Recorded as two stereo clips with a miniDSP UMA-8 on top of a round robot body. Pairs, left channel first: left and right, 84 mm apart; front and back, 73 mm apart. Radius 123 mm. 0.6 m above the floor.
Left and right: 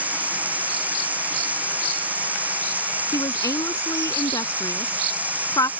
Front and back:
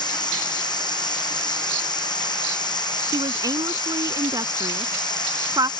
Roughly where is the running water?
Ahead.